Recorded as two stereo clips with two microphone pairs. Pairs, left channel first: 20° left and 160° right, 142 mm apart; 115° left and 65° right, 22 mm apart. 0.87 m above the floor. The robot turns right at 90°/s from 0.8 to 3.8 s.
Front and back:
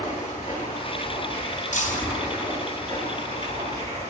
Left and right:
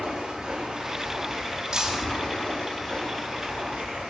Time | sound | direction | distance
0.0 | running water | 10° right | 9.5 m
1.7 | breaking glass | 5° right | 2.5 m